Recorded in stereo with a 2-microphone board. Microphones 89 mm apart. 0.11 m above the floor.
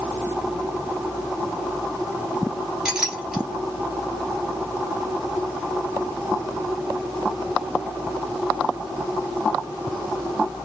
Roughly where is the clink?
Centre.